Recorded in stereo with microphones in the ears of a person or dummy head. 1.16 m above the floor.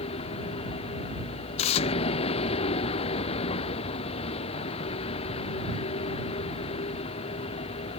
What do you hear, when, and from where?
0.0 s a vehicle: 35° left (ahead or behind)
1.6 s tearing paper: 35° left (ahead or behind)